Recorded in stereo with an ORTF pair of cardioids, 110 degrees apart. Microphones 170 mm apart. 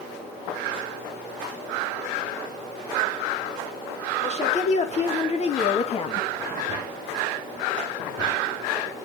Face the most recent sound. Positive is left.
turn(degrees=35)